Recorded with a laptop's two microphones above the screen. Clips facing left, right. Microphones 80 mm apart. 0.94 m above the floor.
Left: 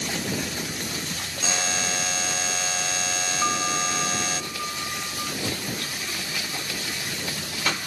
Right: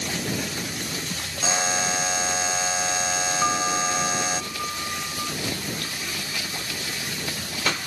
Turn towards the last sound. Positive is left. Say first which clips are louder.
# right 1 dB
turn(degrees=-10)  # may be behind; listen again after turning